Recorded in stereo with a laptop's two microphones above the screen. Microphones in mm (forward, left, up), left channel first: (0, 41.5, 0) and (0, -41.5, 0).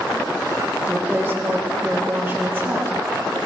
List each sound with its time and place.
0.8 s a woman speaking: 30° right (ahead or behind), 1.6 m